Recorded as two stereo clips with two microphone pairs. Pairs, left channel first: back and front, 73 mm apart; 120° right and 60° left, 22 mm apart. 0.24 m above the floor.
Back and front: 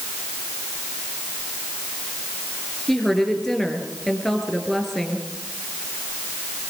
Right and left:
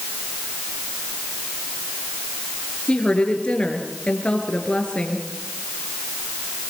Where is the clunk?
No clunk in this recording.